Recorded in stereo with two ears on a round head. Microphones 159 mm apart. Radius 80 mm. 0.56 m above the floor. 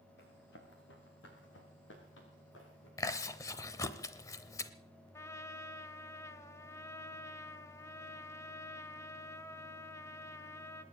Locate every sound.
0.2 s running footsteps: 65° left (ahead or behind), 4 m; by 2.9 s 85° left, 6 m
3.0 s chewing: 20° left (ahead or behind), 0.7 m
5.1 s a trumpet: 15° left (ahead or behind), 0.9 m